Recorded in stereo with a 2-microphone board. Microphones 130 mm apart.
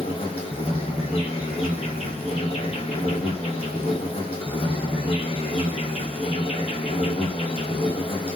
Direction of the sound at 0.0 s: 45° left (ahead or behind).